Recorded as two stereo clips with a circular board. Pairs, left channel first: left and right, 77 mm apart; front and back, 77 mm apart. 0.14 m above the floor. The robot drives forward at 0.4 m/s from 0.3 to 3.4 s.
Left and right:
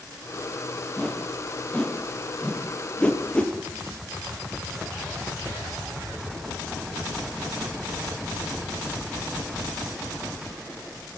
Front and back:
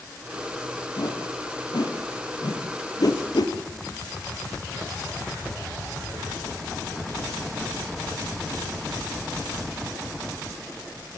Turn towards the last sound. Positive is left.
turn(degrees=15)